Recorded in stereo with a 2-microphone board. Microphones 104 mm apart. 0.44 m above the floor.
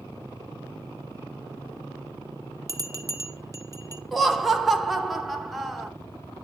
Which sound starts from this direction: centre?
Laughter, at 4.1 s.